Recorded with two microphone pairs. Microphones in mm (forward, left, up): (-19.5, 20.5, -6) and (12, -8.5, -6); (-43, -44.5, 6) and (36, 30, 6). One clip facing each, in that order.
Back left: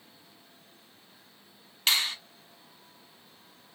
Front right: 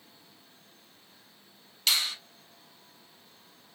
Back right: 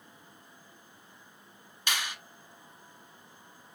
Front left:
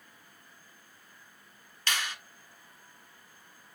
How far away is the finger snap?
About 0.9 m.